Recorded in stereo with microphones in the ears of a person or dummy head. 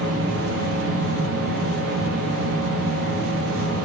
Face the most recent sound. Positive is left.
turn(degrees=-65)  # may be behind; listen again after turning